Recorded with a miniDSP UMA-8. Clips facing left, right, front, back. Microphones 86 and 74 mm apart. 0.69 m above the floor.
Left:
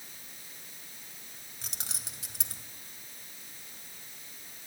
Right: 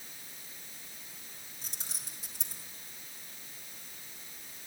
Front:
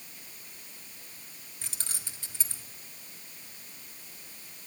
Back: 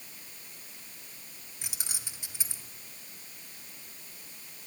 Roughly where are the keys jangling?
Left.